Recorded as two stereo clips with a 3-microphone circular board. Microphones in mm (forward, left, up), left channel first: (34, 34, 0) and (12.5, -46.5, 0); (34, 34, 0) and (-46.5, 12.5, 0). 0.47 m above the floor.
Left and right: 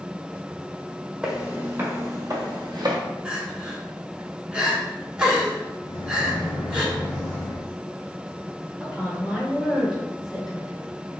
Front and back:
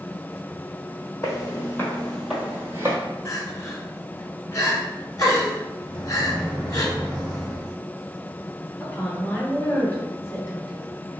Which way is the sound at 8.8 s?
20° right.